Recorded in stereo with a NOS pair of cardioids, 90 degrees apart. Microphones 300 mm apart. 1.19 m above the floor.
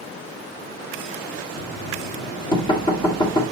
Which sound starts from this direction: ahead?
Knocking, at 1.6 s.